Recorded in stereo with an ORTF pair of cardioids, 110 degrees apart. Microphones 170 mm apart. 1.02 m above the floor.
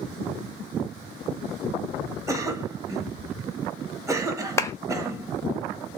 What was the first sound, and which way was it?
A cough, 20° right.